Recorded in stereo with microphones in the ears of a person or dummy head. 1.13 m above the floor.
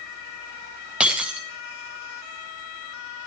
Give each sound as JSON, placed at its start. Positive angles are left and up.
{"t": 1.0, "sound": "breaking glass", "side_deg": -5, "distance_m": 0.5}